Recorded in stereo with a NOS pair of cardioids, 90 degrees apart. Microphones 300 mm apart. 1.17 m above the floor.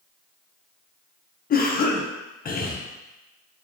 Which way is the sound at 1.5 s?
30° left.